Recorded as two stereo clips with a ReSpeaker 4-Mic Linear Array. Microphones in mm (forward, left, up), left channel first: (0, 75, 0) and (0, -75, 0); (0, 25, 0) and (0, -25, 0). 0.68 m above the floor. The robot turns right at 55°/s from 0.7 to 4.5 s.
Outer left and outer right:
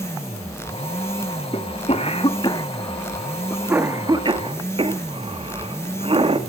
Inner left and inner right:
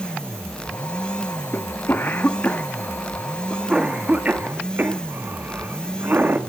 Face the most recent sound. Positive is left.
turn(degrees=-35)  # may be behind; listen again after turning